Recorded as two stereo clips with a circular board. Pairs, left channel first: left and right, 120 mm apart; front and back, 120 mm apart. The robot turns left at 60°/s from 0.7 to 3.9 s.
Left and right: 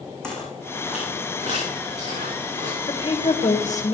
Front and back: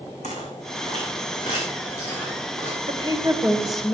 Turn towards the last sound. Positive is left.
turn(degrees=80)